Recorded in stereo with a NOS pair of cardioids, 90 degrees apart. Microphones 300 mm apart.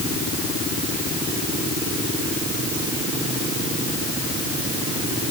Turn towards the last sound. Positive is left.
No sound to turn to.